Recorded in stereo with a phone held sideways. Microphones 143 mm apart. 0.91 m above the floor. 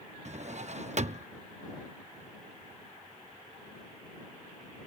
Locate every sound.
0.2 s a drawer: 55° right (ahead or behind)